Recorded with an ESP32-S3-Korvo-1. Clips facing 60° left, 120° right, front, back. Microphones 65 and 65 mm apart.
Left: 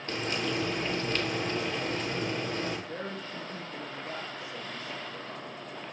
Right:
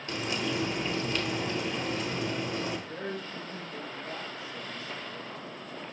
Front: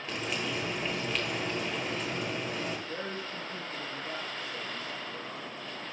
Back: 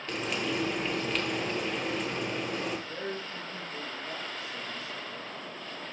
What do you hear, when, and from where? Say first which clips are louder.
0.1 s frying: even, back 3 dB; 90° left, 2.5 m
2.9 s a woman speaking: right 1 dB, back 1 dB; 45° left, 4 m